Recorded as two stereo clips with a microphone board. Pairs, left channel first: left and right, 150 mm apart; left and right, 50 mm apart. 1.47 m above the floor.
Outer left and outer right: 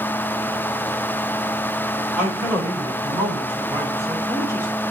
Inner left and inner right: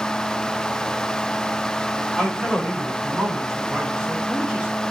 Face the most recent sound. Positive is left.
turn(degrees=-20)  # may be behind; listen again after turning